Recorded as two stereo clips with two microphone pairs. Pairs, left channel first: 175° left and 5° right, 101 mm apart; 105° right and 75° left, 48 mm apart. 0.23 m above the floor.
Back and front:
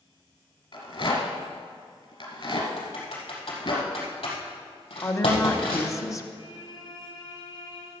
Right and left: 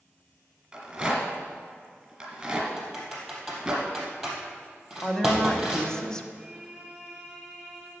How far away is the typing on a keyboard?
About 4 m.